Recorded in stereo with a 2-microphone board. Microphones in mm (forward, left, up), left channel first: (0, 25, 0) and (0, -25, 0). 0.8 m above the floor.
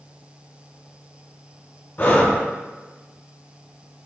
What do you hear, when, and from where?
2.0 s breathing: 40° left (ahead or behind), 0.8 m